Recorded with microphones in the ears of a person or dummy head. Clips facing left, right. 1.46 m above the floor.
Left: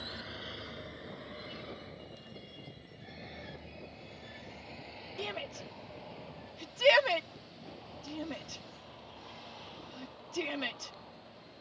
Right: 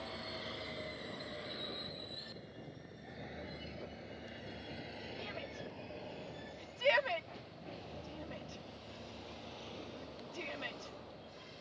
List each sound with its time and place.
0.0 s a vehicle: 5° left (ahead or behind); by 11.6 s 25° right (ahead or behind)
5.2 s a shout: 55° left (ahead or behind)